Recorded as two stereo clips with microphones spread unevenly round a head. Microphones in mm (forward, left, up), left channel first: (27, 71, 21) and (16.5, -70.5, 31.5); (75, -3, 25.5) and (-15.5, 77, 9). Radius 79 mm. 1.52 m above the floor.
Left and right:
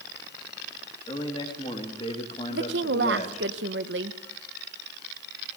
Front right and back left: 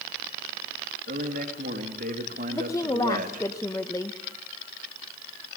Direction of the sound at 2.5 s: 110° right.